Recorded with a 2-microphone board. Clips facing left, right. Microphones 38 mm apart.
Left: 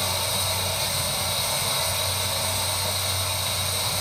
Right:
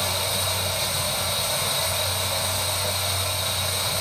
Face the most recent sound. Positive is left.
turn(degrees=-55)  # may be behind; listen again after turning